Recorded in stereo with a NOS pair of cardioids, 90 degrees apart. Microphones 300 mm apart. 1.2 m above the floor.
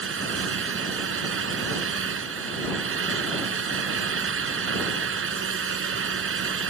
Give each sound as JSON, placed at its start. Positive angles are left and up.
{"t": 0.0, "sound": "a fan", "azimuth_deg": -45}